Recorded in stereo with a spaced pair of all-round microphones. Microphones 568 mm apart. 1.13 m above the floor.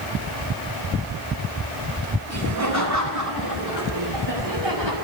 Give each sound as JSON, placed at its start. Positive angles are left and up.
{"t": 2.3, "sound": "laughter", "side_deg": -25, "distance_m": 5.5}